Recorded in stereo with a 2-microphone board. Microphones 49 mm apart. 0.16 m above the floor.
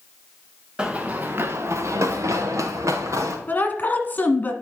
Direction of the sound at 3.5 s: 35° left (ahead or behind).